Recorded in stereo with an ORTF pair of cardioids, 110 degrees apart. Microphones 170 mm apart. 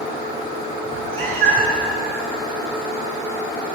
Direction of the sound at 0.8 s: 70° right.